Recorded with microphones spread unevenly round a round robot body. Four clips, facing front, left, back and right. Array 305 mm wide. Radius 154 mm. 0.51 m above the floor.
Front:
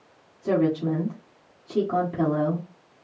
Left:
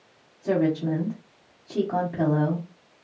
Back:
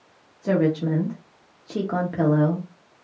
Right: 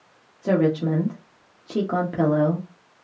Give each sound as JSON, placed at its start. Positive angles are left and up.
{"t": 0.4, "sound": "a woman speaking", "azimuth_deg": -100, "distance_m": 1.2}